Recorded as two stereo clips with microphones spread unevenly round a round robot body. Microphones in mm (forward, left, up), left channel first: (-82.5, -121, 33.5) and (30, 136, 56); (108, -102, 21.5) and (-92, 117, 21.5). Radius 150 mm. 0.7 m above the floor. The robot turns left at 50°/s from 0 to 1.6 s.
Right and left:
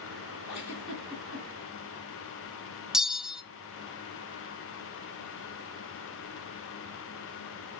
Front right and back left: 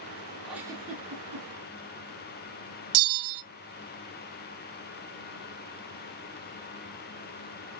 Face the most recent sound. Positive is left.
turn(degrees=155)